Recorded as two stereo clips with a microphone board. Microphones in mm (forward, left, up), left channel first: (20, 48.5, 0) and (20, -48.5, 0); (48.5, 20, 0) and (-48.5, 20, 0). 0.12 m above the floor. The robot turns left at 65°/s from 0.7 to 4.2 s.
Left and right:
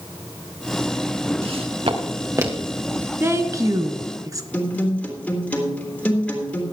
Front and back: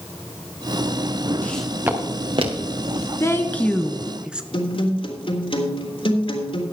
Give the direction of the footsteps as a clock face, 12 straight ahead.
2 o'clock.